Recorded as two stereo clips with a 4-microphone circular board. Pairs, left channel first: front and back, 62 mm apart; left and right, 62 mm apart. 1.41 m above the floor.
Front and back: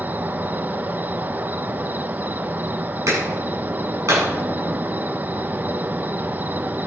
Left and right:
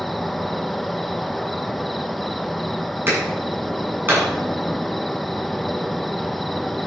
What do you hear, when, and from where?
0.0 s an insect: 175° left, 0.7 m
3.1 s a clap: 145° right, 9 m